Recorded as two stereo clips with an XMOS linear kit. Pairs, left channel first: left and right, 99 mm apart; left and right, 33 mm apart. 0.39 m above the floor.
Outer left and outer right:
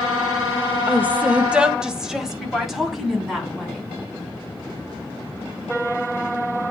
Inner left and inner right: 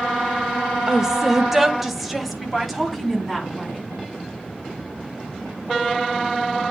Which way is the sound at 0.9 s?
20° right (ahead or behind).